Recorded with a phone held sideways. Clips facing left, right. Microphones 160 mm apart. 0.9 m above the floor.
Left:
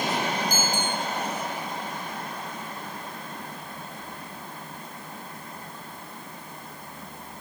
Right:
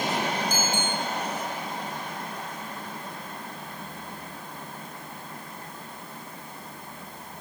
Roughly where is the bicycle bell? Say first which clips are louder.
Even; left.